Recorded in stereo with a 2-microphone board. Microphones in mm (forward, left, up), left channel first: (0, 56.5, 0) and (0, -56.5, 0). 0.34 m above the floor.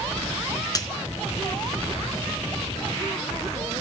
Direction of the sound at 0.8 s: 35° left (ahead or behind).